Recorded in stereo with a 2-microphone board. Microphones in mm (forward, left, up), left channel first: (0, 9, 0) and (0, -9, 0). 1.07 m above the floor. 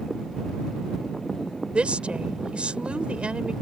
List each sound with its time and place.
1.7 s a woman speaking: 85° right